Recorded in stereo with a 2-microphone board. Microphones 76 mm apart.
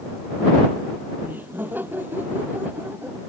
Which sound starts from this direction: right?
Laughter, at 1.2 s.